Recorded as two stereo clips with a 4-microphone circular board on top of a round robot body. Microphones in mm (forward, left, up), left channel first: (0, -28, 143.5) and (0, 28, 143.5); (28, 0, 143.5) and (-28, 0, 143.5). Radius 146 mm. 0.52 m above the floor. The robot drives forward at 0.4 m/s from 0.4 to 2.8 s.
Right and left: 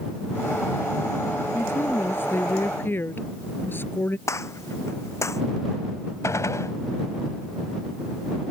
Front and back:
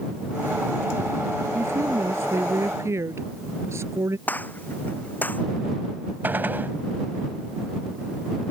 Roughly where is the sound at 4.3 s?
Ahead right.